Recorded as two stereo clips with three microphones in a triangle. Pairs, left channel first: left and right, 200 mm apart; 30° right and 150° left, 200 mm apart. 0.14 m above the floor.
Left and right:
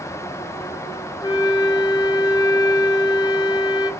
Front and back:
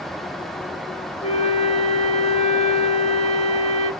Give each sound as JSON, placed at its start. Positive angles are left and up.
{"t": 1.2, "sound": "a flute", "azimuth_deg": 20, "distance_m": 0.7}